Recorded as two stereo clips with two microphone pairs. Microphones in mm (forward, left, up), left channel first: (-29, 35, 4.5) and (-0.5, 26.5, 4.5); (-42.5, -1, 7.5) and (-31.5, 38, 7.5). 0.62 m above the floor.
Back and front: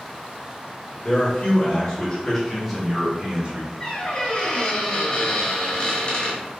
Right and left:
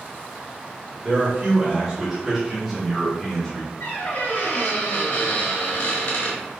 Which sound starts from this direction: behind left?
A man speaking, at 1.0 s.